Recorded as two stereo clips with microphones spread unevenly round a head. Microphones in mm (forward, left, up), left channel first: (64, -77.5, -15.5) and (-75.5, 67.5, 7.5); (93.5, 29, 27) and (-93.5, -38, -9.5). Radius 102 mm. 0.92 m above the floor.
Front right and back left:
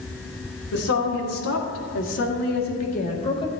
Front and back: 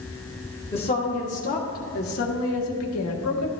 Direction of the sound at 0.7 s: 45° right.